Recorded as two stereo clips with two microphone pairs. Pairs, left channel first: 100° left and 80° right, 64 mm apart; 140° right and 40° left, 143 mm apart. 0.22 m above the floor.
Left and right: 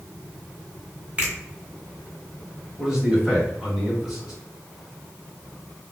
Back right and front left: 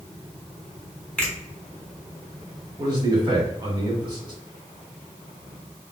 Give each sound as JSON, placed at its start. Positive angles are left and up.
{"t": 1.2, "sound": "a finger snap", "azimuth_deg": -70, "distance_m": 1.5}
{"t": 2.8, "sound": "a man speaking", "azimuth_deg": 5, "distance_m": 1.8}